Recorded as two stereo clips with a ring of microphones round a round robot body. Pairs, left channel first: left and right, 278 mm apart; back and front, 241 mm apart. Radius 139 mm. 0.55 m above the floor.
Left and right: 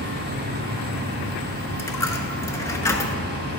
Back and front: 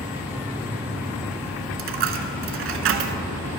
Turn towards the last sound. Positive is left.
turn(degrees=15)